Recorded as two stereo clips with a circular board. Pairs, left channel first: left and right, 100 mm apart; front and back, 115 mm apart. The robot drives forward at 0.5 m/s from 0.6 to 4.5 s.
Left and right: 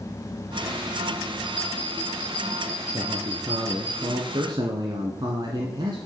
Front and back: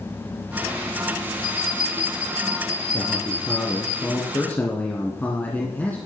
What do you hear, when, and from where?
1.4 s a bell: 20° left, 7 m; by 3.9 s 25° left, 6 m
2.9 s a man speaking: 45° right, 2 m; by 6.0 s 70° right, 1.6 m